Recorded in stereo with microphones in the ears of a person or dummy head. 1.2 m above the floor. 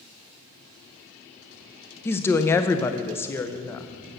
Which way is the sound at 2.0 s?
15° left (ahead or behind).